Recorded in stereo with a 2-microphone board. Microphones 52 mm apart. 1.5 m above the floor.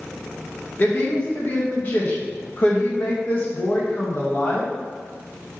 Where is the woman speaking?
40° left (ahead or behind), 1.8 m.